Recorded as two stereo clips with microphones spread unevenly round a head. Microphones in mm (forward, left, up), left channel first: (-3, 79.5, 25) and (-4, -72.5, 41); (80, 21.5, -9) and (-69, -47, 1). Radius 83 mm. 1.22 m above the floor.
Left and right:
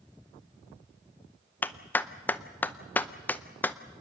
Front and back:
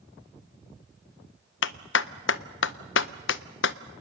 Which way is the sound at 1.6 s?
10° left.